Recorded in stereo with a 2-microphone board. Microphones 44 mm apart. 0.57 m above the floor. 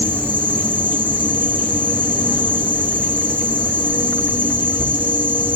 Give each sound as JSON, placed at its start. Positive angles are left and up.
{"t": 0.0, "sound": "an insect", "side_deg": -40, "distance_m": 7.5}